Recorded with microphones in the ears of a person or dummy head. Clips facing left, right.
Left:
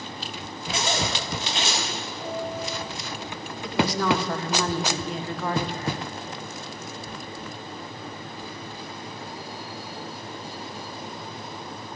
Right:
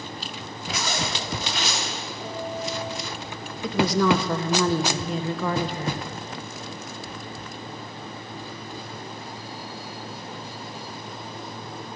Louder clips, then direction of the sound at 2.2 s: Even; 65° right (ahead or behind).